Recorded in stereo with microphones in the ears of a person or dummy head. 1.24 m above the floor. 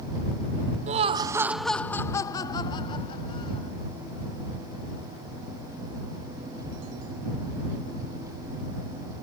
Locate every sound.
0.9 s laughter: 35° right (ahead or behind); by 3.7 s 25° left (ahead or behind)